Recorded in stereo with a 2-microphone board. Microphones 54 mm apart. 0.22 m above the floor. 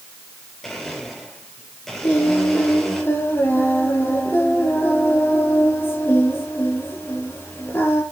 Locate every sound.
0.6 s a blender: 10° left (ahead or behind), 4.5 m
2.0 s singing: 40° left (ahead or behind), 3.5 m